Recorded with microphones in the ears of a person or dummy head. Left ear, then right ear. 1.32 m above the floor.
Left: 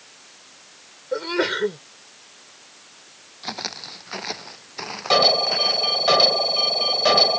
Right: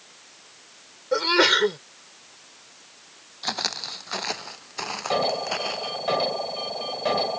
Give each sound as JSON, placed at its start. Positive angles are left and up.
{"t": 1.1, "sound": "a sneeze", "side_deg": -40}
{"t": 3.4, "sound": "footsteps", "side_deg": -20}
{"t": 5.1, "sound": "an alarm", "side_deg": 35}